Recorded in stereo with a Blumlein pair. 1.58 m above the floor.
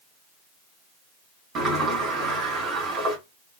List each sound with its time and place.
1.6 s a sliding door: 25° right, 1.3 m